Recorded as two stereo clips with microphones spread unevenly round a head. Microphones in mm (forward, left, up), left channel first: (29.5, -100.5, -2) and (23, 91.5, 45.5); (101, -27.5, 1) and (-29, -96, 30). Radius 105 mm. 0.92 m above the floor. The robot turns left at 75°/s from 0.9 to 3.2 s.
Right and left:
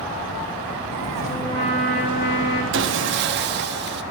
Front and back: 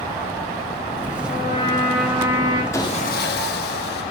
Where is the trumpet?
5° left, 4 m; by 2.6 s 100° right, 4 m.